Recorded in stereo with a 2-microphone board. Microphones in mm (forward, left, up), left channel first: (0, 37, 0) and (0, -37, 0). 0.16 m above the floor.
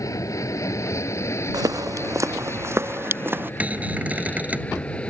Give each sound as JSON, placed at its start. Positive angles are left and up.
{"t": 0.0, "sound": "an aircraft", "side_deg": 45}
{"t": 1.5, "sound": "footsteps", "side_deg": -60}
{"t": 3.6, "sound": "a cupboard door", "side_deg": -20}